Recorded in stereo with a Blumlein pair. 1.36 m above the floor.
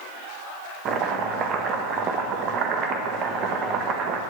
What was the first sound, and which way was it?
Chopping, 30° right.